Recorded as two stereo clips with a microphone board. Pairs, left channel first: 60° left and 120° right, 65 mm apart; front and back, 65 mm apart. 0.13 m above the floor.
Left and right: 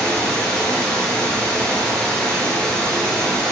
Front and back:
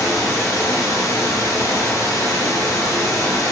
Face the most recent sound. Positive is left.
turn(degrees=-10)